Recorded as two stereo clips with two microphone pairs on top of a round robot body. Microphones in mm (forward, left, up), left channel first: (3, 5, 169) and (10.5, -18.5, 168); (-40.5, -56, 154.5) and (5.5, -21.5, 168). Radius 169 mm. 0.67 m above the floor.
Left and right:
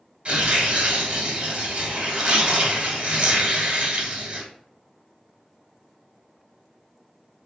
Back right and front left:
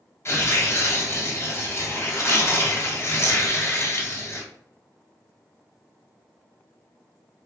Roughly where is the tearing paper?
Behind right.